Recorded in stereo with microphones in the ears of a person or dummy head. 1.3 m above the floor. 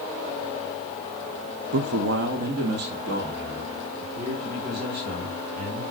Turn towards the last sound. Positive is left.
turn(degrees=-55)  # may be behind; listen again after turning